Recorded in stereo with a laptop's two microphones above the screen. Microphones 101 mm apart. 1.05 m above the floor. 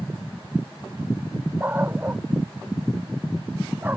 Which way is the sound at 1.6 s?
20° right (ahead or behind).